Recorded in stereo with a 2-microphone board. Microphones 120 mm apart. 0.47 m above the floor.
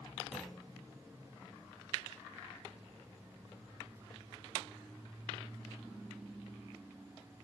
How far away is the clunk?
About 3 m.